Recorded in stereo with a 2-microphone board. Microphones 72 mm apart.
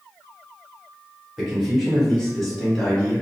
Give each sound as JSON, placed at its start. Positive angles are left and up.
{"t": 1.4, "sound": "a man speaking", "side_deg": -5, "distance_m": 1.6}